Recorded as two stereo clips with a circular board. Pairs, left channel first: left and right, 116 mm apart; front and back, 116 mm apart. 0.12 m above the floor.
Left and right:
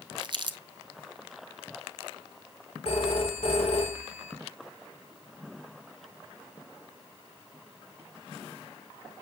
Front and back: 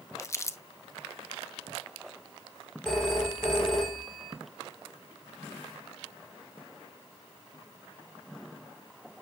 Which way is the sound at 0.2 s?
60° right.